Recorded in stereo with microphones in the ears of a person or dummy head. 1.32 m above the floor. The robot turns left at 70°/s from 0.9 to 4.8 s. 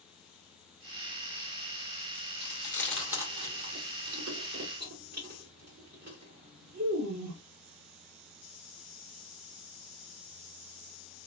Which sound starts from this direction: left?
Chewing, at 2.4 s.